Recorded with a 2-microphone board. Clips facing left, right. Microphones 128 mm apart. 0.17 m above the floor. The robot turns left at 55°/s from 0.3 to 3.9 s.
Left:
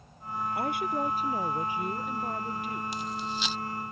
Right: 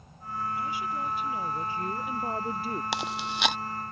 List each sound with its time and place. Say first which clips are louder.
0.5 s a woman speaking: left 5 dB; 80° left; by 2.8 s 45° right
2.9 s chewing: right 2 dB; 80° right; by 3.6 s 60° right (ahead or behind)